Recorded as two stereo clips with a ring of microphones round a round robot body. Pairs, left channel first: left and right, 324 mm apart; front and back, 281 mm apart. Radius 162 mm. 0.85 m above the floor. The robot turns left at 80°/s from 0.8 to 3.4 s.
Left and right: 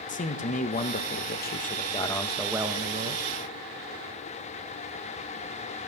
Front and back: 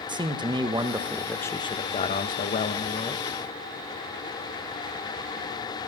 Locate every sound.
0.1 s a man speaking: 125° left, 1.0 m; by 3.2 s 70° right, 1.0 m